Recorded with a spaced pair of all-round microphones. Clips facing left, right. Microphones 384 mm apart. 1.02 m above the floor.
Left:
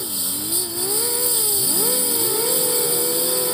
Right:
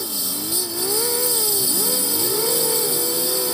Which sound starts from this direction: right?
A lawn mower, at 0.0 s.